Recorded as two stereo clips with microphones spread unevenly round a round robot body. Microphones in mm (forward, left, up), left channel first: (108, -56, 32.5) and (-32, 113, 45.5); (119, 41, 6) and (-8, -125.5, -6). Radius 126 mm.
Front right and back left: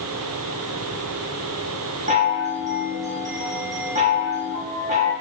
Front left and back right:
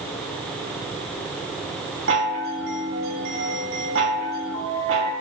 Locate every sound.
2.1 s a chime: 170° right, 0.7 m